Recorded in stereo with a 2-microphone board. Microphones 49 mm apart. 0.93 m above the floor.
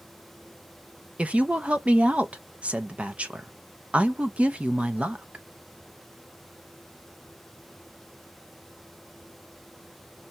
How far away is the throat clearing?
I don't hear throat clearing.